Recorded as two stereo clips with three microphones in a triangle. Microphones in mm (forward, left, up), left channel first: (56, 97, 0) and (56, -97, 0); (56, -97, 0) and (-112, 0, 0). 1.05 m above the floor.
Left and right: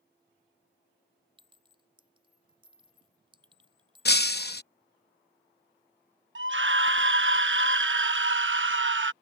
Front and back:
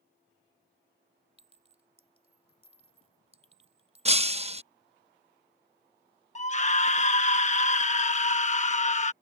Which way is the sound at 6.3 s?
85° right.